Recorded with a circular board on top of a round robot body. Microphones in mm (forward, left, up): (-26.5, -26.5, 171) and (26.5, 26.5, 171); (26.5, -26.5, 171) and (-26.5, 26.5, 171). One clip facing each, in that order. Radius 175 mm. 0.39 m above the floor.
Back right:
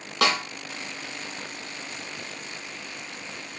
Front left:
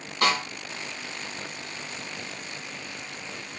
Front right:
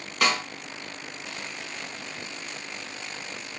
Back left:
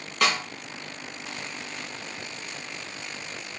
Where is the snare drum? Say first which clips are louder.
Even, even; 135° right, 0.8 m.